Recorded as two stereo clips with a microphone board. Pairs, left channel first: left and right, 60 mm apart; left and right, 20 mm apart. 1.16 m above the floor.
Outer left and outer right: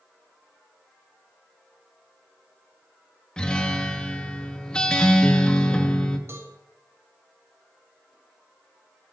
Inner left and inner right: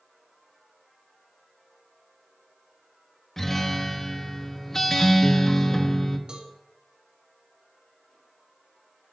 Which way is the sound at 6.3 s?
45° right (ahead or behind).